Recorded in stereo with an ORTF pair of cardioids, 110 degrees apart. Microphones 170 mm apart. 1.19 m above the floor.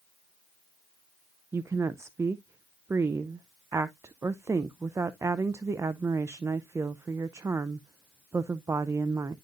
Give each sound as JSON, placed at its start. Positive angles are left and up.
{"t": 1.5, "sound": "a woman speaking", "azimuth_deg": -15, "distance_m": 0.6}